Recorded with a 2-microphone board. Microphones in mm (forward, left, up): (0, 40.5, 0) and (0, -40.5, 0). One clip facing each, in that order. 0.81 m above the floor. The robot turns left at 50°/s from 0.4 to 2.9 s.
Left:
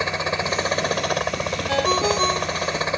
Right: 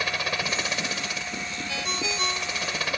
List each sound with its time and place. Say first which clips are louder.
0.0 s a helicopter: left 5 dB; 155° left; by 3.0 s 30° left
1.7 s a ringtone: left 13 dB; 65° left; by 2.8 s 5° left